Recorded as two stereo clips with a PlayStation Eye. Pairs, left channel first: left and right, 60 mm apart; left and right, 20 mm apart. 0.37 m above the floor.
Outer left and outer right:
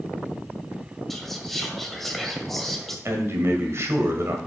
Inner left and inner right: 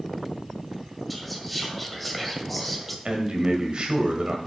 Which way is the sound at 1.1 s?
5° left (ahead or behind).